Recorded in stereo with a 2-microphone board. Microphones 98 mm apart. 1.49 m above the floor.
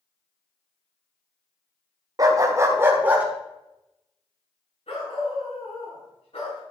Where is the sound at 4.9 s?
80° left, 5.5 m.